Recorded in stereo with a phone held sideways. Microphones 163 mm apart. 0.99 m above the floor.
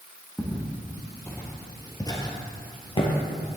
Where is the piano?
No piano in this recording.